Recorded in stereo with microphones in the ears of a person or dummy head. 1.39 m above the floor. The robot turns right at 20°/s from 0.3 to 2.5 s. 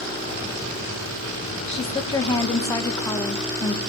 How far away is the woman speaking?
About 1.5 m.